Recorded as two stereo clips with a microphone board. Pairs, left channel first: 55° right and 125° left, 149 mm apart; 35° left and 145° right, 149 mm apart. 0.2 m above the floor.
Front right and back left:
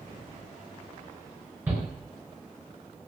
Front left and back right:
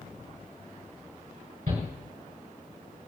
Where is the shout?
160° right, 4 m.